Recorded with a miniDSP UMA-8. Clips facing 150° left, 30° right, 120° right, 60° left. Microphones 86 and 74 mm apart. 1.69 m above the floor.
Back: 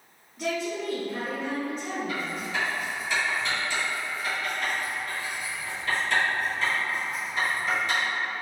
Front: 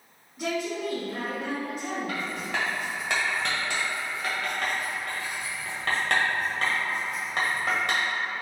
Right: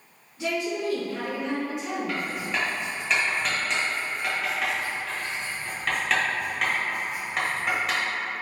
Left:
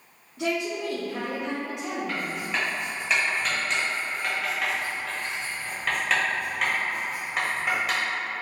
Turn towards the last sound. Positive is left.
turn(degrees=-25)